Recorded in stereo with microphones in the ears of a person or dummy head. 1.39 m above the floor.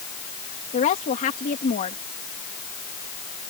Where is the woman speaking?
40° left (ahead or behind).